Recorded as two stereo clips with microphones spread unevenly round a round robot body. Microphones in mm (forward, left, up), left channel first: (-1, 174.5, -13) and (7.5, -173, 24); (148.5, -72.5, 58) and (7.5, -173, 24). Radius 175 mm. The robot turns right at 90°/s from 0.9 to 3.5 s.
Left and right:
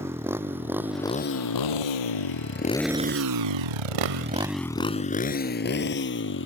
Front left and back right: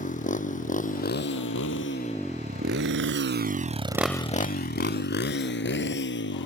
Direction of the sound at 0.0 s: 5° right.